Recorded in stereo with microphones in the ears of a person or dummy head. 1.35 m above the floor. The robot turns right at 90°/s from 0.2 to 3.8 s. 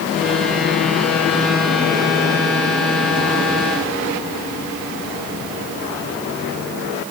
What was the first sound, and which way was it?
Only background noise.